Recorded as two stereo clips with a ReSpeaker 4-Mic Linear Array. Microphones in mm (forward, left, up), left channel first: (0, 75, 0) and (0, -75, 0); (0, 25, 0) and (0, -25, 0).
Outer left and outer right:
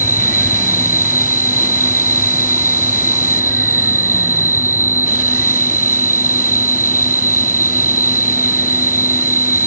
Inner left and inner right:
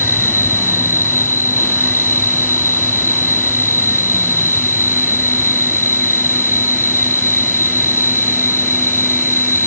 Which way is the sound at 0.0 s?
65° left (ahead or behind).